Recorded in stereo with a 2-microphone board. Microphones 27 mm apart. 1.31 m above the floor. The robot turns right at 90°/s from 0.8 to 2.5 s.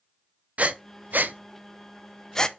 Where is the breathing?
60° right (ahead or behind), 0.5 m; by 2.5 s 30° left (ahead or behind), 0.5 m.